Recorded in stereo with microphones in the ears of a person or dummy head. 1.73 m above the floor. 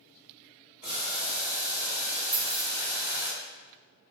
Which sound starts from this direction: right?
Boiling, at 0.8 s.